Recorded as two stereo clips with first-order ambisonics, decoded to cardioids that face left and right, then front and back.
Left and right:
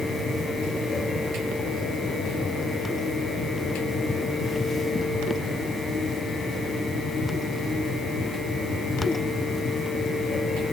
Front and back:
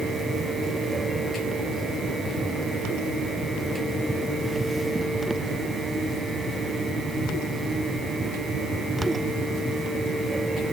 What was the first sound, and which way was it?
Only background noise.